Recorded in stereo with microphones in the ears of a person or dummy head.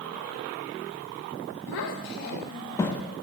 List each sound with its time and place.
1.7 s a child speaking: 70° left (ahead or behind), 1.3 m; by 3.0 s centre (ahead or behind), 1.0 m